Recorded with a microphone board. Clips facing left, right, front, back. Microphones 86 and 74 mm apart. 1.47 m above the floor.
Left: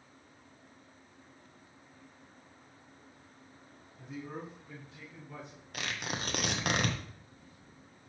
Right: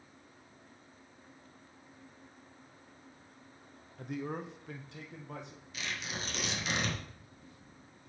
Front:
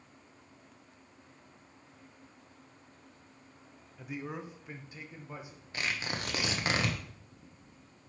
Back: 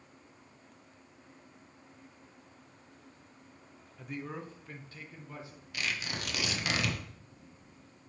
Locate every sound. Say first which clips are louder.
4.0 s a man speaking: right 4 dB, front 1 dB; 90° right, 0.6 m; by 5.6 s 70° right, 1.8 m
5.7 s tearing paper: left 3 dB, front 1 dB; 55° left, 1.0 m